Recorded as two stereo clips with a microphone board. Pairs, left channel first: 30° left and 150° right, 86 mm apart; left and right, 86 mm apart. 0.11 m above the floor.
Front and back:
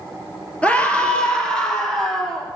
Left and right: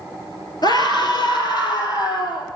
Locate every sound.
0.6 s a scream: 100° left, 2 m; by 2.5 s 115° left, 3.5 m